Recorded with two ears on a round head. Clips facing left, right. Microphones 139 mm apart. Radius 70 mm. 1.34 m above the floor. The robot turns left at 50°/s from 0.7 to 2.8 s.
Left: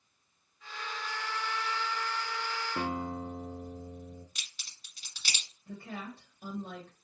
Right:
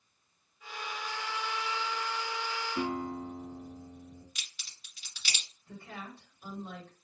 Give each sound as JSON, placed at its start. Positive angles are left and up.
{"t": 2.8, "sound": "a guitar", "side_deg": 60, "distance_m": 0.8}
{"t": 4.3, "sound": "a crack", "side_deg": 40, "distance_m": 2.0}
{"t": 5.7, "sound": "a woman speaking", "side_deg": 45, "distance_m": 1.6}